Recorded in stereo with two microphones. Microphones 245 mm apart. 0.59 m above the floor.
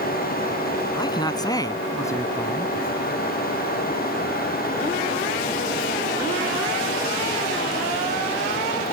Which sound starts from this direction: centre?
A man speaking, at 0.9 s.